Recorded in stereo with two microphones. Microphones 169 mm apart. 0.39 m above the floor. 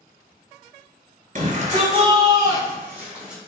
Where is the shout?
50° right (ahead or behind), 1.6 m; by 3.4 s 5° right (ahead or behind), 2.0 m.